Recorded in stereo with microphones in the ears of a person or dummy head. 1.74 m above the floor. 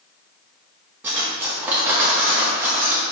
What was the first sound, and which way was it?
Cutlery clinking, 10° right (ahead or behind).